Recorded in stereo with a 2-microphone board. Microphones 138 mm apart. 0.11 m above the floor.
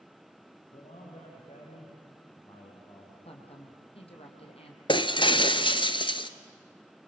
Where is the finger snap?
I don't hear a finger snap.